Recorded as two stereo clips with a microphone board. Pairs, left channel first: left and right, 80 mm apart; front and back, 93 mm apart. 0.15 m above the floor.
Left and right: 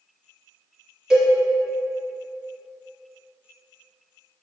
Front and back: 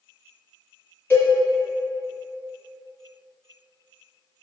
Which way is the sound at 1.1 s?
10° right.